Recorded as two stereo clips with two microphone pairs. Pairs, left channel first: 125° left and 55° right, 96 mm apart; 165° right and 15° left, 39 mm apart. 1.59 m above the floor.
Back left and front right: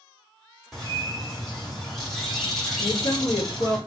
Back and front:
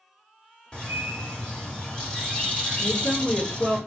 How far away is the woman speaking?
About 1.7 m.